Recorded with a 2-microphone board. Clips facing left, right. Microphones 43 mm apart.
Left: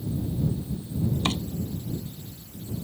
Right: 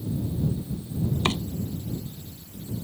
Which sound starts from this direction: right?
Chopping, at 1.2 s.